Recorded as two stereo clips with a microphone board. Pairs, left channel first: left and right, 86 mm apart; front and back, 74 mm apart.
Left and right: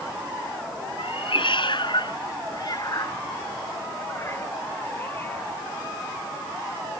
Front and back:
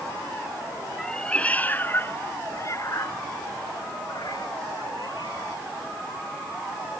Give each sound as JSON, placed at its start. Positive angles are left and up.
{"t": 1.0, "sound": "a cat meowing", "azimuth_deg": 80}